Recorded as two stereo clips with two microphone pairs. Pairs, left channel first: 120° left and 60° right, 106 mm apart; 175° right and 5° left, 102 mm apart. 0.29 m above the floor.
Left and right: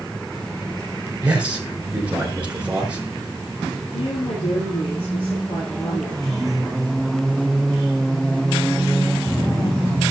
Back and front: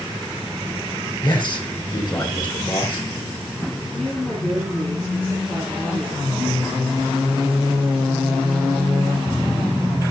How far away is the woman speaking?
About 5.5 m.